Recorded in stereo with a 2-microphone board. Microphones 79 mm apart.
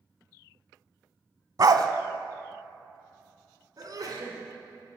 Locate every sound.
1.6 s a dog barking: 55° right (ahead or behind), 0.6 m
3.8 s a sneeze: 55° right (ahead or behind), 2 m